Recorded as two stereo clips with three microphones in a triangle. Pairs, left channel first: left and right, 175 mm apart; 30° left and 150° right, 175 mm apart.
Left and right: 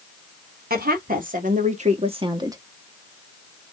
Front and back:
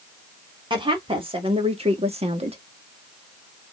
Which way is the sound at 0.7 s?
90° right.